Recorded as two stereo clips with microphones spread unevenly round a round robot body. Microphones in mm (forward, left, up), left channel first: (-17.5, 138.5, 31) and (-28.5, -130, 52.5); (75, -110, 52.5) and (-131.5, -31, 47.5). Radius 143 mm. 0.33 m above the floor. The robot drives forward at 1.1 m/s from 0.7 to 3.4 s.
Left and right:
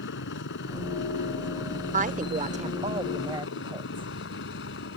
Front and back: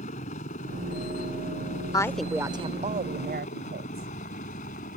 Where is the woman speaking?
70° right; by 4.1 s 165° right.